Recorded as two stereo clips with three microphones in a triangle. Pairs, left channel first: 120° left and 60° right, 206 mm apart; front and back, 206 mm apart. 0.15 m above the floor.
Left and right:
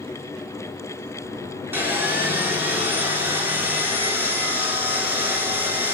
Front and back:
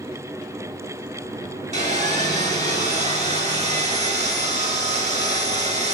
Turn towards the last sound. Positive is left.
turn(degrees=-140)